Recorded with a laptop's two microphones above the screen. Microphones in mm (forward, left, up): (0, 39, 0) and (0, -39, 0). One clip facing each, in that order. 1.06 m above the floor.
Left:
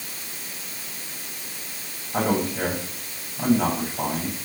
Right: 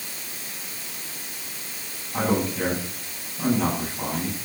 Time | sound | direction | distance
2.1 | a man speaking | 40° left (ahead or behind) | 8.5 m